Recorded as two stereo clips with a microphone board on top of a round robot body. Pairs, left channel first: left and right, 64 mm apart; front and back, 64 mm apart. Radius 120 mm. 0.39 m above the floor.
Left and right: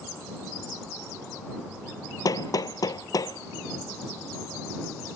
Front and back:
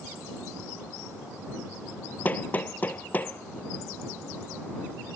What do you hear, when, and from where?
2.2 s hammering: 65° left